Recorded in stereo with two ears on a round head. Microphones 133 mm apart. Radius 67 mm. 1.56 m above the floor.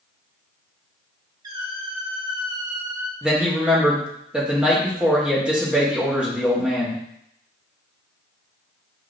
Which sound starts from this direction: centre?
A man speaking, at 3.2 s.